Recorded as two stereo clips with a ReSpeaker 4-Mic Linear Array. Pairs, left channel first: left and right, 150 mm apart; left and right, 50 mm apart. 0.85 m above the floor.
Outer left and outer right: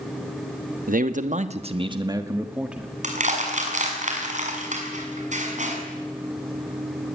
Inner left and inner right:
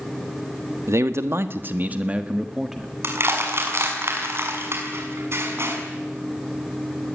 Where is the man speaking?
65° right (ahead or behind), 1.5 m; by 2.9 s 5° right (ahead or behind), 1.7 m.